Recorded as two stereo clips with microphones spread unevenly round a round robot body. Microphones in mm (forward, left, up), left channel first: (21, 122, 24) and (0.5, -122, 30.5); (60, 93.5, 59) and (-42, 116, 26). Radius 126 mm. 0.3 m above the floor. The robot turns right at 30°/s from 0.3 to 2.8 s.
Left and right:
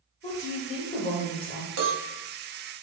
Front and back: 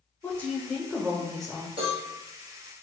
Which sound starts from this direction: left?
A woman speaking, at 0.2 s.